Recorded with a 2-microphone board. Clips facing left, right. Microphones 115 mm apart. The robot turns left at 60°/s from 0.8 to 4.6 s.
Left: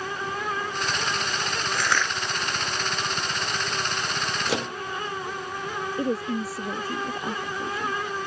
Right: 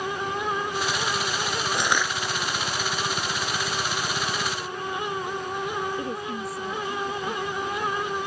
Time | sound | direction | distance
1.7 | crushing | 25° right (ahead or behind) | ?
4.5 | a microwave | 75° left (ahead or behind) | ?
6.0 | a woman speaking | 30° left (ahead or behind) | ?